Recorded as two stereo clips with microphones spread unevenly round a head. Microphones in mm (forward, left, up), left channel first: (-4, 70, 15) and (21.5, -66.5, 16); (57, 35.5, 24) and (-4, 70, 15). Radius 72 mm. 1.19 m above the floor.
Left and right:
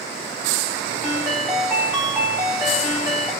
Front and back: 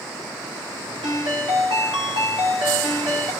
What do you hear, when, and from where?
1.0 s a ringtone: 165° right, 1.8 m